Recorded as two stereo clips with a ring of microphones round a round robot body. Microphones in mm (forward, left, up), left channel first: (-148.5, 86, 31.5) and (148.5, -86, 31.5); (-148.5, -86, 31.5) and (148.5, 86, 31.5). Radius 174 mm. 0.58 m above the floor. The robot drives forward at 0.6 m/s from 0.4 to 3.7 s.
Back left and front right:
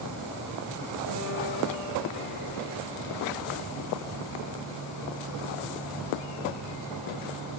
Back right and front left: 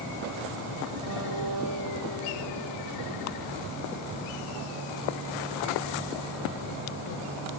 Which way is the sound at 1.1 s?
175° right.